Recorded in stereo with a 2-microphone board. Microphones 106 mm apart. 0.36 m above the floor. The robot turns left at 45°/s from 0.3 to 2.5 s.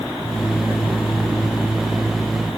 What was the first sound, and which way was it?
Only background noise.